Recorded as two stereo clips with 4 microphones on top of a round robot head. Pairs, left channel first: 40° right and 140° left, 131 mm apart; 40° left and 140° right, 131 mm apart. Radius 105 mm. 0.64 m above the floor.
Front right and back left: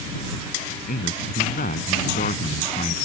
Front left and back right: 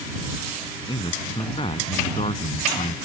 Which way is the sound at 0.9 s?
20° right.